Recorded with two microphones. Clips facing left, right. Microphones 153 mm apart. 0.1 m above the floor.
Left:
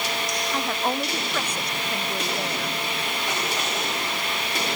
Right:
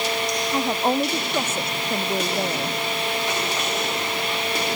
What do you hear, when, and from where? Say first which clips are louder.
0.5 s a woman speaking: right 5 dB; 20° right (ahead or behind); by 2.8 s 30° right (ahead or behind)